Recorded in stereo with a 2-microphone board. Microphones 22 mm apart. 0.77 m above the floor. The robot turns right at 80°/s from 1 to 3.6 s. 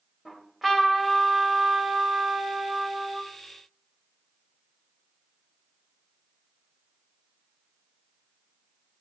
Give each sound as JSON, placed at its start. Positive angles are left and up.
{"t": 0.2, "sound": "a trumpet", "azimuth_deg": 180, "distance_m": 2.5}